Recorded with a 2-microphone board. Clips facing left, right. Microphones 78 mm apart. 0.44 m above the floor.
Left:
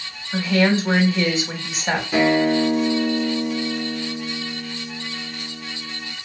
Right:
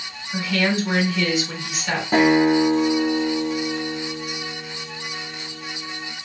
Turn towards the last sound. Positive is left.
turn(degrees=-55)  # may be behind; listen again after turning